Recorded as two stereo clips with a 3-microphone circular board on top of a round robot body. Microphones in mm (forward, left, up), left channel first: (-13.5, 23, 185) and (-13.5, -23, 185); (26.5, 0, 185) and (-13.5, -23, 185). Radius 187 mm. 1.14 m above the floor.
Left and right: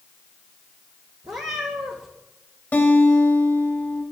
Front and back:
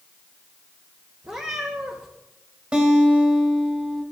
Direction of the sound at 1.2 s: 100° right.